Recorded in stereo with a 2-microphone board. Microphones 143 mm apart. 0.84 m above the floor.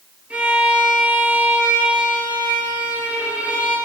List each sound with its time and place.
0.3 s a violin: 10° right (ahead or behind), 4.5 m